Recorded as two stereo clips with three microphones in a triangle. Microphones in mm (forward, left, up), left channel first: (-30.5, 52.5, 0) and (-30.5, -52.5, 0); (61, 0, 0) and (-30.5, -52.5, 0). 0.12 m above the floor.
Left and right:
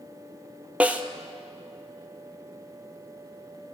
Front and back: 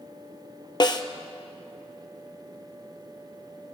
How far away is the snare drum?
About 0.8 m.